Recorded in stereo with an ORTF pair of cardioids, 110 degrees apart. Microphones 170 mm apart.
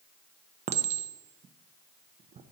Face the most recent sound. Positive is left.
turn(degrees=-40)